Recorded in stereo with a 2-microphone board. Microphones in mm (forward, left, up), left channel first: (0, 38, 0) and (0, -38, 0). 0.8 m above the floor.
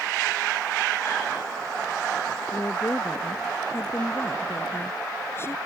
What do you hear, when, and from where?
2.5 s a woman speaking: 35° left (ahead or behind)